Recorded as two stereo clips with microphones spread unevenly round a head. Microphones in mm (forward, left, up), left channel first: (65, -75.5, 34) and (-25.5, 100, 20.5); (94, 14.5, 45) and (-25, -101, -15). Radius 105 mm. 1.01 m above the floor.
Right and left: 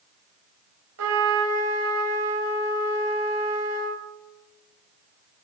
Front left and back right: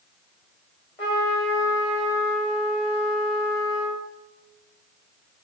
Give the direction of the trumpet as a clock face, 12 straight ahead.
8 o'clock.